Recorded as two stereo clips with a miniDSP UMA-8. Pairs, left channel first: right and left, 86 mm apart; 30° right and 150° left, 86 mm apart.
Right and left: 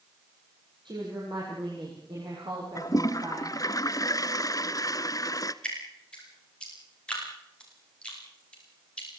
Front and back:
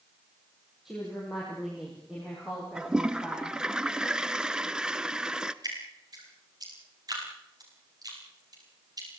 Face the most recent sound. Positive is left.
turn(degrees=-170)